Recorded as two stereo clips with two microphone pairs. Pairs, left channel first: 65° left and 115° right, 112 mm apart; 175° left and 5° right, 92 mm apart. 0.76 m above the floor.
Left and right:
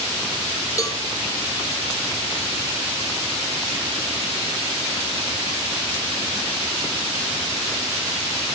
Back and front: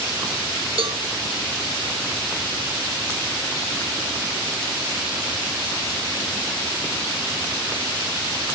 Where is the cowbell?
5° left, 1.6 m.